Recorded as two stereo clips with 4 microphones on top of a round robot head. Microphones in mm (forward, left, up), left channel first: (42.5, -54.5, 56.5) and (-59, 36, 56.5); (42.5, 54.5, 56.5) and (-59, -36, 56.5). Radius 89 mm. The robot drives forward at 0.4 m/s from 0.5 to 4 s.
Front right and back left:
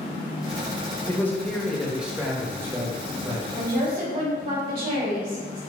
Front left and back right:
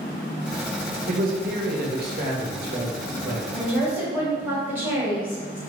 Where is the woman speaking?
145° left, 1.6 m; by 5.6 s 150° left, 1.8 m.